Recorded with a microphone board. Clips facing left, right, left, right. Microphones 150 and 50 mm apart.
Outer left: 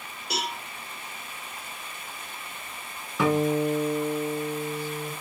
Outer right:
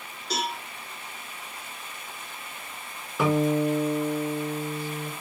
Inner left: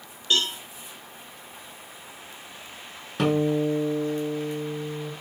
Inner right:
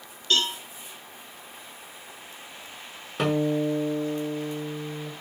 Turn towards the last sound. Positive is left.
turn(degrees=-5)  # may be behind; listen again after turning